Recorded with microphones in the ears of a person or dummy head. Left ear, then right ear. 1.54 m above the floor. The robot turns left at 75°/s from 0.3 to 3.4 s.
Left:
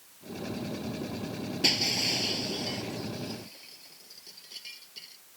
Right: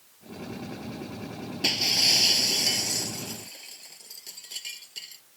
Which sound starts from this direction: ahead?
Breaking glass, at 1.6 s.